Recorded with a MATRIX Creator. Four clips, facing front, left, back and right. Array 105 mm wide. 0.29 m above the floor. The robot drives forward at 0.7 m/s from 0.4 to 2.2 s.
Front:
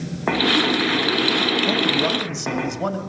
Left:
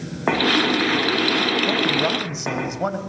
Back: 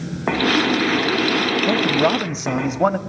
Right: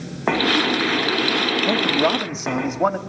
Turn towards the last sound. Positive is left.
turn(degrees=-160)